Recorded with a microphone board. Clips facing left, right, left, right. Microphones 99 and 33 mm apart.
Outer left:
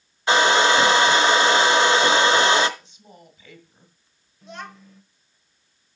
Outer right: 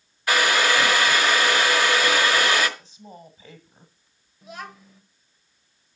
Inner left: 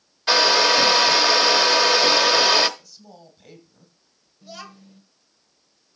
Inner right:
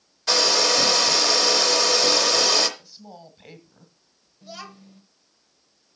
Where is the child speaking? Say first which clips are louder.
Even, even; 5° right (ahead or behind), 1.2 m.